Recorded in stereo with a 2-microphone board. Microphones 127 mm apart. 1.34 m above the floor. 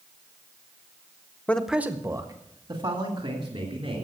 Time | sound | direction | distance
1.5 | a man speaking | 10° left (ahead or behind) | 0.8 m